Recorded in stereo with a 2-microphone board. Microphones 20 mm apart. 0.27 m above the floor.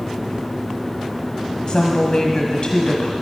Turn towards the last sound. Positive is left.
turn(degrees=45)  # may be behind; listen again after turning